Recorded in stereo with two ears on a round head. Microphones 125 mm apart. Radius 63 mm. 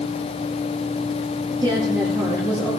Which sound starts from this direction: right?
A woman speaking, at 1.6 s.